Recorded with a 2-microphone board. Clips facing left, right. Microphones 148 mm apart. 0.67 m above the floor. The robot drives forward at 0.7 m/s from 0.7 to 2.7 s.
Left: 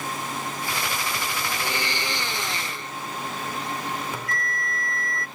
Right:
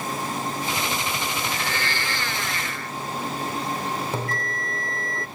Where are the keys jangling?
I don't hear keys jangling.